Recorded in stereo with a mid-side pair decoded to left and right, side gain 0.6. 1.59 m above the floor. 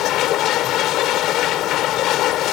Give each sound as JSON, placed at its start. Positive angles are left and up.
{"t": 0.0, "sound": "a machine running", "azimuth_deg": 65}